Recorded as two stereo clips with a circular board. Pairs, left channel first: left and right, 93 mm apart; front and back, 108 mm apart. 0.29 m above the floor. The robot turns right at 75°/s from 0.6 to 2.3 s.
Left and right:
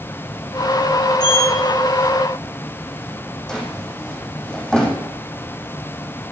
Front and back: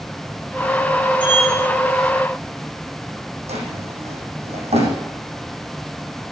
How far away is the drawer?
About 4.5 m.